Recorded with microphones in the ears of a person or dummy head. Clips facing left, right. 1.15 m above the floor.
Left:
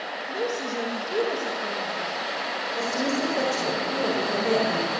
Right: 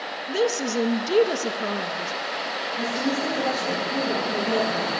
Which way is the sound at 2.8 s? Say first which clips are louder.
Even; 50° left (ahead or behind).